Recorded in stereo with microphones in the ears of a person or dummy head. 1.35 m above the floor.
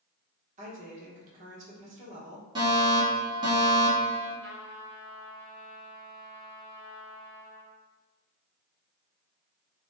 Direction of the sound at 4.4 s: 25° right (ahead or behind).